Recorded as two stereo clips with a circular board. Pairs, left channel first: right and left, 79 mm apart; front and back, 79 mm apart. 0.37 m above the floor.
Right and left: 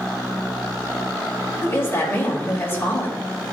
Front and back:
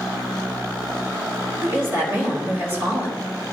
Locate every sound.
1.6 s a woman speaking: 135° right, 1.8 m